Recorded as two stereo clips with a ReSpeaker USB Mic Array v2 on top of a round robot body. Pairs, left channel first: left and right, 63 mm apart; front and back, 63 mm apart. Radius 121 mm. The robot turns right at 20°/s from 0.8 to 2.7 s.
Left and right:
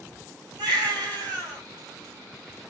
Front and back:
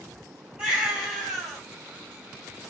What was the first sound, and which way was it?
A baby crying, 105° right.